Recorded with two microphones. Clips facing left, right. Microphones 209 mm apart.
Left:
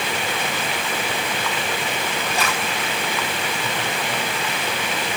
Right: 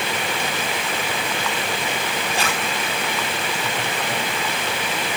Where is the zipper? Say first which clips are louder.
Even; 30° right (ahead or behind), 3.5 m.